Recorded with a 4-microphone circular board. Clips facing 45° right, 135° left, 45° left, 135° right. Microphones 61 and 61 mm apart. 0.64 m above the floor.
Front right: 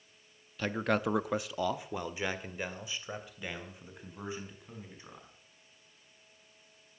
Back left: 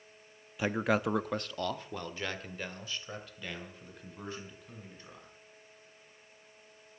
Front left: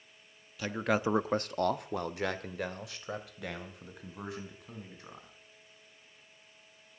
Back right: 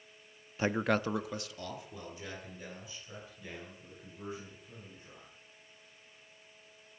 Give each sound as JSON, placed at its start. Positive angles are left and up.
{"t": 0.6, "sound": "a man speaking", "azimuth_deg": -160, "distance_m": 0.6}